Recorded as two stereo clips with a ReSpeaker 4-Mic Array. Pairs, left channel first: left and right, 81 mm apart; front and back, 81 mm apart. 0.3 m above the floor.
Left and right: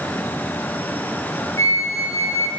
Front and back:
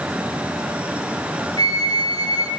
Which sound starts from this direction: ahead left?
A flute, at 1.6 s.